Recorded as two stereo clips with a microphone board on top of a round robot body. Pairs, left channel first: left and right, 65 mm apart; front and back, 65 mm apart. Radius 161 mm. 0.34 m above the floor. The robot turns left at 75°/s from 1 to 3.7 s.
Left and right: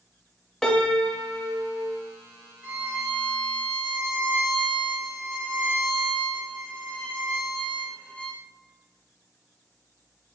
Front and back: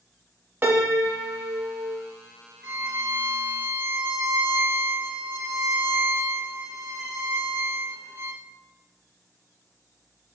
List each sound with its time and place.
0.6 s a piano: 165° left, 0.9 m; by 2.0 s 90° left, 0.9 m
2.6 s a violin: 135° right, 1.6 m; by 8.4 s 145° left, 1.6 m